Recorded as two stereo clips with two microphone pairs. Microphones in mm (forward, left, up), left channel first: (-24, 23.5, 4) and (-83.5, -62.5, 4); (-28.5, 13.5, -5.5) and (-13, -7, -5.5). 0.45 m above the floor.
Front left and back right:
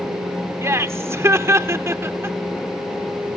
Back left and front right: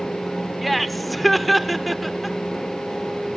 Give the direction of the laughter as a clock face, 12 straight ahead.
5 o'clock.